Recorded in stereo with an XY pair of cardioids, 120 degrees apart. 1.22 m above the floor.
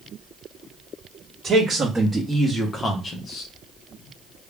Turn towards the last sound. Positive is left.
turn(degrees=65)